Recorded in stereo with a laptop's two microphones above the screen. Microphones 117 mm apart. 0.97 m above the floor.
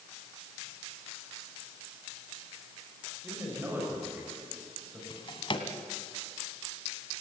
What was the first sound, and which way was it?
A man speaking, 20° right (ahead or behind).